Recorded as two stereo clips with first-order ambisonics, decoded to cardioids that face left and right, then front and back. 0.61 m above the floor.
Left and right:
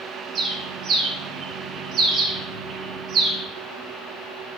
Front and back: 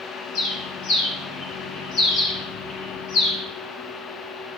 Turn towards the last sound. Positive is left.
turn(degrees=-35)